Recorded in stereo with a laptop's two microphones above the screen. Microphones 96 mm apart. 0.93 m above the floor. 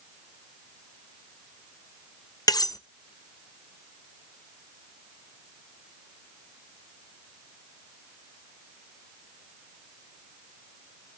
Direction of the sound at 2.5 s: 45° left (ahead or behind).